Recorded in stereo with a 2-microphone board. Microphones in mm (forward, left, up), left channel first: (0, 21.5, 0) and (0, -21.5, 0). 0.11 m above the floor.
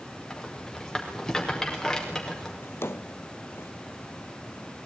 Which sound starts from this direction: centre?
A rattle, at 0.3 s.